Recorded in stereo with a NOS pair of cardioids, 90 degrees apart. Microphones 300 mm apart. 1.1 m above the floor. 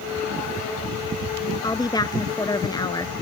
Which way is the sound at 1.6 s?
15° left.